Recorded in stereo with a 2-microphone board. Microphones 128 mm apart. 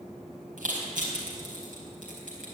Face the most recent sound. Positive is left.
turn(degrees=-85)